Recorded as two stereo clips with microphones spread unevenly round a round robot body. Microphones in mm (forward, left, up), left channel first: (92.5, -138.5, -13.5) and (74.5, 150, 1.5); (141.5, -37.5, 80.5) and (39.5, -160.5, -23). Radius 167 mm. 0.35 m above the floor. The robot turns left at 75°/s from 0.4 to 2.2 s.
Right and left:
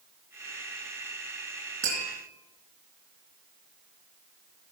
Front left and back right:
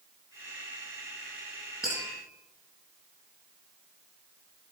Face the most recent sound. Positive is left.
turn(degrees=125)